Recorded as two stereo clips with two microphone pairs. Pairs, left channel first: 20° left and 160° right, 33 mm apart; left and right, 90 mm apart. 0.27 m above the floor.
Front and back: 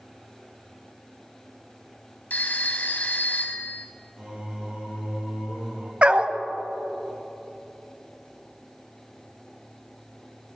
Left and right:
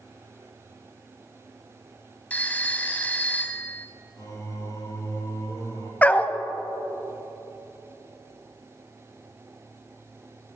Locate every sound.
2.3 s a phone ringing: 20° left, 1.0 m
4.2 s singing: 140° left, 3.5 m
6.0 s a dog barking: 155° left, 0.6 m